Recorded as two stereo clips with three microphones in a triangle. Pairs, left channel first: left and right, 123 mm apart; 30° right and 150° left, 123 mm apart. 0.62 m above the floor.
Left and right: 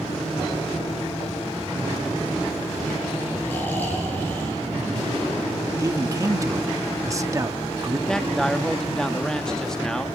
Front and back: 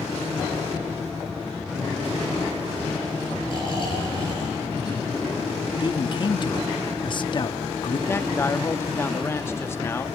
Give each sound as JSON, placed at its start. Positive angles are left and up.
{"t": 3.5, "sound": "snoring", "azimuth_deg": 15, "distance_m": 9.5}
{"t": 5.8, "sound": "a man speaking", "azimuth_deg": -45, "distance_m": 0.8}
{"t": 8.1, "sound": "a man speaking", "azimuth_deg": 10, "distance_m": 0.6}